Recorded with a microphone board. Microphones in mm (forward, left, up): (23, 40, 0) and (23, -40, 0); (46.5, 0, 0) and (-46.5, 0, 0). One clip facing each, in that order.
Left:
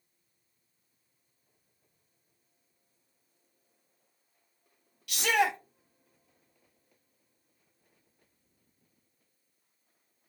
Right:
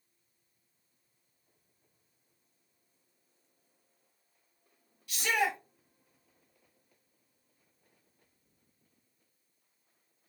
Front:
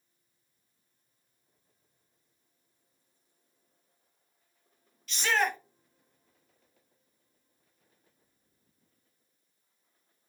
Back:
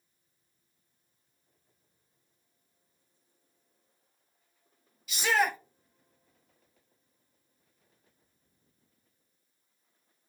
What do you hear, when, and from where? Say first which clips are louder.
5.1 s a shout: left 4 dB, back 1 dB; 95° left, 0.6 m